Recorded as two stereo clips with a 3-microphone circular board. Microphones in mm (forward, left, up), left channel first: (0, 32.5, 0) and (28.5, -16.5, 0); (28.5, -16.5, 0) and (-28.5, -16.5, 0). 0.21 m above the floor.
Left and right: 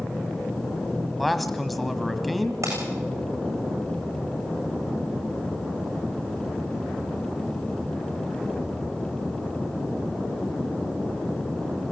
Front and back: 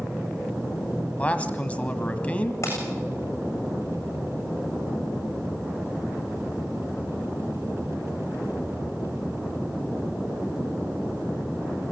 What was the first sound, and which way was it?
A man speaking, 30° left.